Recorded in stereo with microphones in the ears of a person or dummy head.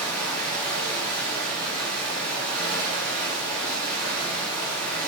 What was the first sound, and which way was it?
Running water, 5° left (ahead or behind).